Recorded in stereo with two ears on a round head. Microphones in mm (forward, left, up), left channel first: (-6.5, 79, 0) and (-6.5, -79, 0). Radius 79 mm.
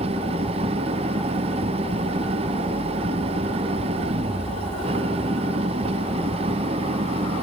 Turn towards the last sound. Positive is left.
turn(degrees=-35)  # may be behind; listen again after turning